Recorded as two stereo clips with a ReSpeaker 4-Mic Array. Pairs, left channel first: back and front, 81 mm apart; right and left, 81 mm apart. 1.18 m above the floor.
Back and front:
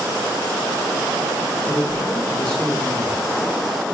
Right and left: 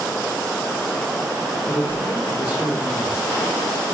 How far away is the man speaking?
About 1.5 m.